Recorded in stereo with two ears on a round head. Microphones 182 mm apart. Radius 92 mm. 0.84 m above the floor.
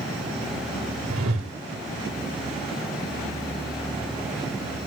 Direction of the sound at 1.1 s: 75° right (ahead or behind).